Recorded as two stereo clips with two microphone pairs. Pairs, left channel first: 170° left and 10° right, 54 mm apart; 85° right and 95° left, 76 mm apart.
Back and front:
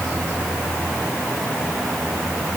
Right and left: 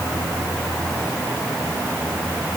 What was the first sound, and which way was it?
Only background noise.